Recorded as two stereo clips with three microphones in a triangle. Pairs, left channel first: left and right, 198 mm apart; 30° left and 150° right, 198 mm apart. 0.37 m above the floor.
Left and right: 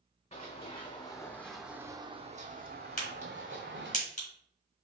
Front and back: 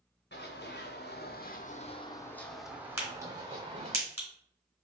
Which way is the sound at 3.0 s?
135° left.